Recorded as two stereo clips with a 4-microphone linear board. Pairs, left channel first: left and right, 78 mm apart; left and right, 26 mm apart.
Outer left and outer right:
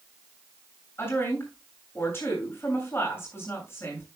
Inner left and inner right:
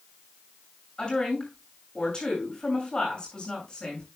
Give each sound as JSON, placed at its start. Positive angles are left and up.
{"t": 1.0, "sound": "a woman speaking", "side_deg": 30, "distance_m": 7.0}